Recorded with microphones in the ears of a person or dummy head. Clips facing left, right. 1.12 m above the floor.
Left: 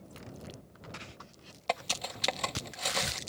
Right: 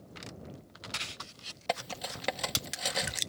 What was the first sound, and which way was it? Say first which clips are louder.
Cutlery clinking: even; 5° right (ahead or behind).